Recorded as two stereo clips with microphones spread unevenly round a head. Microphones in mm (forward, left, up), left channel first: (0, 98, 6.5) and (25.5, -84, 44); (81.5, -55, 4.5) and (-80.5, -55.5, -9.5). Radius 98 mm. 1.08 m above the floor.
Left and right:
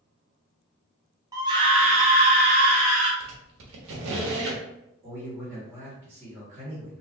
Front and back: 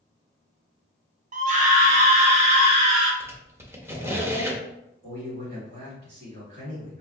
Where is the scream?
160° right, 0.9 m; by 3.1 s 130° right, 2 m.